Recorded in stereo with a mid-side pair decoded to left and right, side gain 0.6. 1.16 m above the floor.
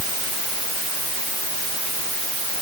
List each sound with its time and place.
Only background noise.